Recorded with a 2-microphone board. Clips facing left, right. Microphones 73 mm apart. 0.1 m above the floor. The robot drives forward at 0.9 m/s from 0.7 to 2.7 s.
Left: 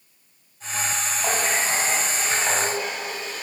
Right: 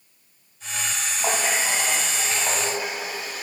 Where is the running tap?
10° right (ahead or behind), 2.0 m; by 3.4 s 5° right (ahead or behind), 3 m.